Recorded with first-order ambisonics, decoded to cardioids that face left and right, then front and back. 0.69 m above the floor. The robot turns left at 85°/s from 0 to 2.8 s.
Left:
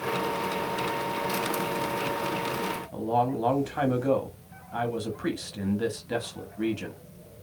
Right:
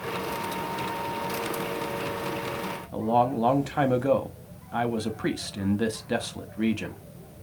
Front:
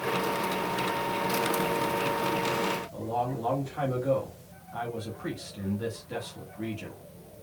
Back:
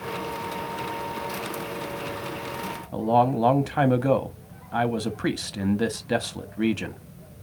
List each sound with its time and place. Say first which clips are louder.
2.9 s a man speaking: right 4 dB, back 10 dB; 165° right, 0.7 m